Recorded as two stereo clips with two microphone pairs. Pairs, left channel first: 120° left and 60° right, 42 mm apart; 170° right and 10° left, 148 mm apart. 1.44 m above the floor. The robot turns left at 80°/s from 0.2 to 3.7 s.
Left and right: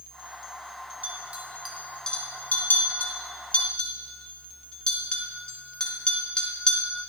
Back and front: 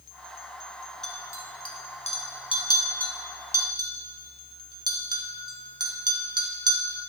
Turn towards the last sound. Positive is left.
turn(degrees=60)